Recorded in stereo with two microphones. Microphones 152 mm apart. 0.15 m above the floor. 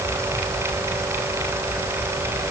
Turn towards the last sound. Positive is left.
No sound to turn to.